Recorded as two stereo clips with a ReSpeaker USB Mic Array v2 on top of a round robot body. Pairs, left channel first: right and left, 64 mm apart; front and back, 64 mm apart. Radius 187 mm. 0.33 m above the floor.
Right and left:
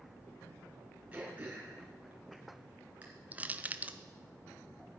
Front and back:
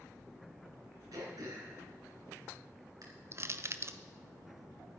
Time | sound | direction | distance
1.1 | throat clearing | 160° left | 3 m
3.3 | crushing | 150° left | 0.8 m